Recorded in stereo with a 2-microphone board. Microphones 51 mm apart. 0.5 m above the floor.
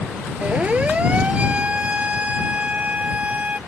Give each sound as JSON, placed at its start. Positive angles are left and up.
{"t": 0.4, "sound": "a siren", "side_deg": -25}